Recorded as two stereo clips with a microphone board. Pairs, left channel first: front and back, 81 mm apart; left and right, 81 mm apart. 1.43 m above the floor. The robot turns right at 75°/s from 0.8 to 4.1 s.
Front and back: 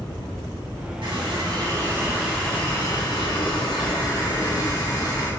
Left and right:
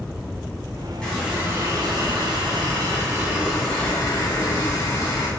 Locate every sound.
1.0 s a running tap: 175° left, 3.5 m; by 5.3 s 45° left, 3.5 m